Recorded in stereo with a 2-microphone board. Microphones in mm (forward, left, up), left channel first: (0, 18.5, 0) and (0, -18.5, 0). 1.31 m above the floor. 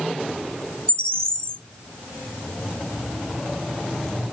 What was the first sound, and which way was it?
A bird, 25° left (ahead or behind).